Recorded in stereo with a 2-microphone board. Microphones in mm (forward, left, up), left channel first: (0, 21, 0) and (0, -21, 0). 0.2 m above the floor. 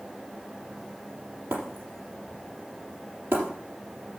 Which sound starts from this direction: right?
Breaking glass, at 1.5 s.